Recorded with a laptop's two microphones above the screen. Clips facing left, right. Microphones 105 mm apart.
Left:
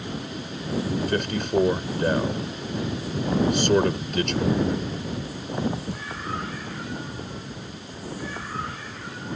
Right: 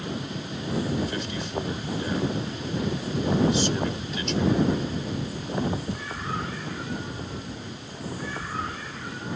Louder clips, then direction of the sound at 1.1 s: Left 7 dB; 60° left (ahead or behind).